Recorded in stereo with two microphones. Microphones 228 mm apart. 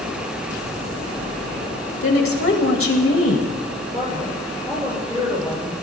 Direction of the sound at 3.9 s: 15° right (ahead or behind).